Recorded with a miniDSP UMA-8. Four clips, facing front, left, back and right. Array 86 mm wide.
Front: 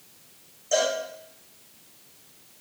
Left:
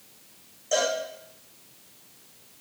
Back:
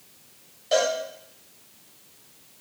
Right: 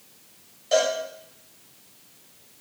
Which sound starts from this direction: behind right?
A cowbell, at 0.7 s.